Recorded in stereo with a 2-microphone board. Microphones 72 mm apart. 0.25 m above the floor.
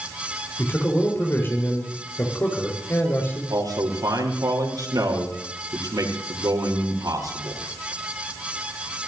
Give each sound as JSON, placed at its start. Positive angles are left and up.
{"t": 0.6, "sound": "a man speaking", "side_deg": 35, "distance_m": 5.0}
{"t": 3.5, "sound": "a man speaking", "side_deg": -65, "distance_m": 5.0}